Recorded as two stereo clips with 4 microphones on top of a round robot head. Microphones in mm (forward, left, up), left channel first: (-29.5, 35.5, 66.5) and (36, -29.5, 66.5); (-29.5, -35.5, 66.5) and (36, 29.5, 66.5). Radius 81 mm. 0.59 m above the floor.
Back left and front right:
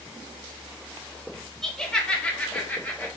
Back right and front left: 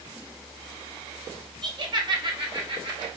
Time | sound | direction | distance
1.6 | laughter | 50° left | 1.3 m